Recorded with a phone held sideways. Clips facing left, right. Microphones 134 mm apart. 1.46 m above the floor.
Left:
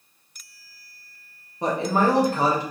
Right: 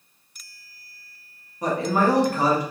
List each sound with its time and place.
1.6 s a man speaking: 25° left (ahead or behind), 0.9 m